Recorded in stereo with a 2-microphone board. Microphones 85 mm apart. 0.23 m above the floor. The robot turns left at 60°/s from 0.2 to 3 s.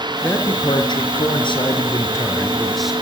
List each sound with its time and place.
0.2 s a man speaking: 155° left, 4 m; by 2.9 s 5° right, 4 m